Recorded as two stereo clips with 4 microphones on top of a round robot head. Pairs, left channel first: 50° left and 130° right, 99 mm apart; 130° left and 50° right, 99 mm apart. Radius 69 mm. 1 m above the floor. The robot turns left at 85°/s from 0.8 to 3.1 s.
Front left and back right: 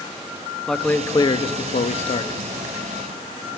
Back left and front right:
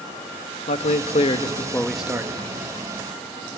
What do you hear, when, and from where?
0.7 s a man speaking: 135° left, 1.1 m; by 2.4 s straight ahead, 1.1 m